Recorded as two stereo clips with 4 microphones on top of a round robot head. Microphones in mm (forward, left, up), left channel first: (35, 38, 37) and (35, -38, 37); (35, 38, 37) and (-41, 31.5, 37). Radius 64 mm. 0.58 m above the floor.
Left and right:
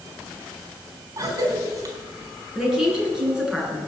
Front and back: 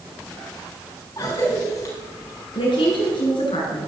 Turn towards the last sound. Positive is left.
turn(degrees=-10)